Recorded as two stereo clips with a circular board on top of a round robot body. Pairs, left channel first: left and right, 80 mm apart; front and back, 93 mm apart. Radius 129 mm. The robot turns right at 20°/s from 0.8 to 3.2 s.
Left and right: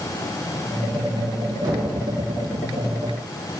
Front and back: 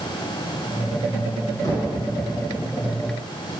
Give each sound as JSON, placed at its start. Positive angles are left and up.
{"t": 1.6, "sound": "knocking", "azimuth_deg": -55, "distance_m": 2.5}